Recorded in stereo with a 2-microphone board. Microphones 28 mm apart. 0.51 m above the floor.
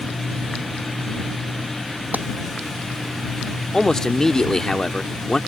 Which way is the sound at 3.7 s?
20° left (ahead or behind).